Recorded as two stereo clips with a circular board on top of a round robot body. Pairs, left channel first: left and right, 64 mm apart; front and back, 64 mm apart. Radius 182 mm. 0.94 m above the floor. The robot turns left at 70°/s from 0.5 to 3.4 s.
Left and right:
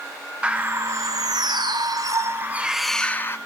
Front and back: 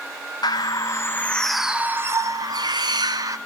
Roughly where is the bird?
Ahead.